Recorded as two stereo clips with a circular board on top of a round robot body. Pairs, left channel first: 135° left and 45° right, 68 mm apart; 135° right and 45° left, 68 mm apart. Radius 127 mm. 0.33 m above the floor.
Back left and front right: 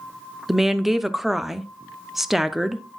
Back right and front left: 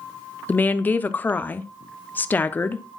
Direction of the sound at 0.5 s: 125° right.